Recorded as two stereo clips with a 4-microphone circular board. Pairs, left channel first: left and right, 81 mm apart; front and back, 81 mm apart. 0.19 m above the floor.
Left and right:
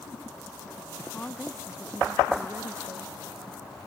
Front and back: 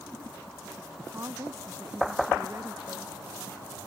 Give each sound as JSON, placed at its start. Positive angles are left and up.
{"t": 1.1, "sound": "a woman speaking", "azimuth_deg": 150}